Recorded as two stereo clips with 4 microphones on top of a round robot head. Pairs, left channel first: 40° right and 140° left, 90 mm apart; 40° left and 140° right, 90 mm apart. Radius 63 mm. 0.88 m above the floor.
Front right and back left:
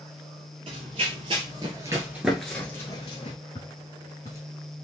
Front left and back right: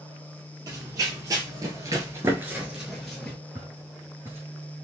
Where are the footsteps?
80° right, 1.0 m.